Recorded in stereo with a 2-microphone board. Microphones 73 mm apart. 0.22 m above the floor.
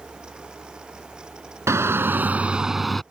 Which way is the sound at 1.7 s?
40° right (ahead or behind).